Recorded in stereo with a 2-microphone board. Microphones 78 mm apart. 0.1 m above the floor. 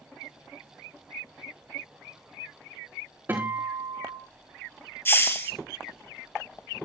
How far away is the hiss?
About 1.5 m.